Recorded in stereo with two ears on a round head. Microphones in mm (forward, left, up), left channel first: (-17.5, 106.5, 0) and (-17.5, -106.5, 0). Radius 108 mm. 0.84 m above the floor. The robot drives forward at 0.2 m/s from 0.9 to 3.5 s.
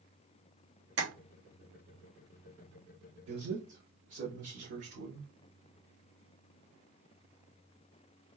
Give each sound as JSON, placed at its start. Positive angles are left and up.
{"t": 1.0, "sound": "tapping", "side_deg": -50, "distance_m": 0.9}
{"t": 3.3, "sound": "a man speaking", "side_deg": -60, "distance_m": 3.0}